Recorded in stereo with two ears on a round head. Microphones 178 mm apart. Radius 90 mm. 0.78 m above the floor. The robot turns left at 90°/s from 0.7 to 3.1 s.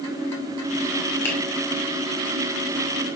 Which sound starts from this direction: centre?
A finger snap, at 1.2 s.